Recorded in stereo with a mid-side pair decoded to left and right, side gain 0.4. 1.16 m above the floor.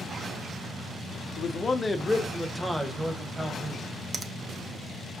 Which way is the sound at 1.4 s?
60° left.